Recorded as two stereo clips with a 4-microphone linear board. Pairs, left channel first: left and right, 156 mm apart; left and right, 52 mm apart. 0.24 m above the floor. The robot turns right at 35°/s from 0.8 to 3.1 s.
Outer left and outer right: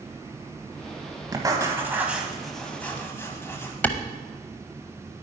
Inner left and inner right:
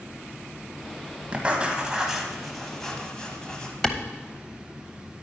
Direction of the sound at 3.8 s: 10° left (ahead or behind).